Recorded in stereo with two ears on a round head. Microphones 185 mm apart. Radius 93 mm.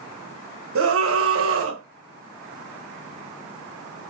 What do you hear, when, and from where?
0.8 s a scream: 70° right (ahead or behind), 1.3 m